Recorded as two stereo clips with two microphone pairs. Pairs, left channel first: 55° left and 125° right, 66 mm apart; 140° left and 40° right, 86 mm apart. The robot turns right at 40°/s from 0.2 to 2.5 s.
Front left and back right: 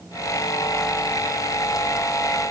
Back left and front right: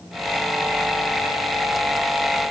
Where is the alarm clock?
No alarm clock in this recording.